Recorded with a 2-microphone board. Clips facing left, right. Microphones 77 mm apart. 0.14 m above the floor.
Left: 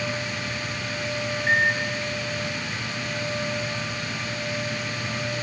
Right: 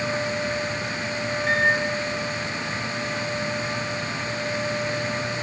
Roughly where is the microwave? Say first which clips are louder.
Right 1 dB; left.